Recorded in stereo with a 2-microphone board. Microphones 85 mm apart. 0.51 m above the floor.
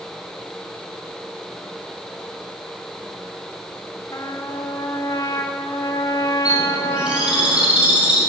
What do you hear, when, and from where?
4.1 s a trumpet: 40° left (ahead or behind), 1.0 m
6.5 s a bird: 10° right (ahead or behind), 4.5 m